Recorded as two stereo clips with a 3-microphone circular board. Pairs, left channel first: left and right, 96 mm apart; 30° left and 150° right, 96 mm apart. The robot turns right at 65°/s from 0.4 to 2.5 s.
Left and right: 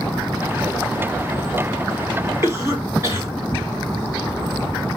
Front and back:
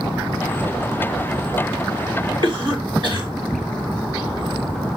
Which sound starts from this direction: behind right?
A cough, at 2.4 s.